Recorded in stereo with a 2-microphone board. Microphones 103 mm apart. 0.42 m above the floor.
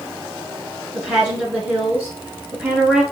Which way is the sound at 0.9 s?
15° right (ahead or behind).